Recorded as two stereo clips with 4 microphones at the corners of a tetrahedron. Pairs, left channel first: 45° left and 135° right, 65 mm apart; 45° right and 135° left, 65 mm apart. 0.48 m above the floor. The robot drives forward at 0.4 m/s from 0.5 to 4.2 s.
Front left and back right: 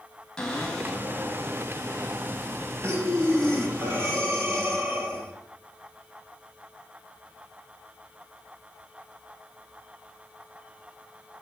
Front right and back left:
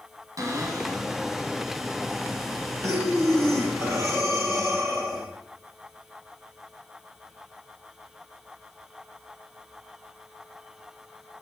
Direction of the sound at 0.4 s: 125° left.